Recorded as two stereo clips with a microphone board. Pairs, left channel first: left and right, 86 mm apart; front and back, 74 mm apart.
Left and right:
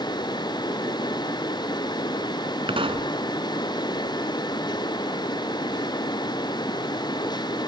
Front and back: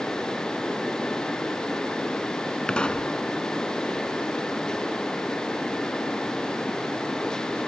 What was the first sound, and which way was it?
A pop, 75° right.